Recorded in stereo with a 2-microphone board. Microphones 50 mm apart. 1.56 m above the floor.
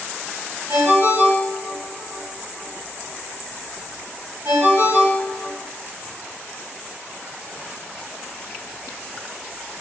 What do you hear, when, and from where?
0.7 s a ringtone: 60° right (ahead or behind), 1.5 m